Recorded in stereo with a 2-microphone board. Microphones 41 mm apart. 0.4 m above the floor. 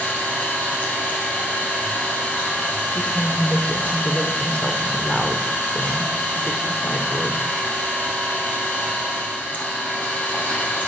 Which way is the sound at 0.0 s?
40° left (ahead or behind).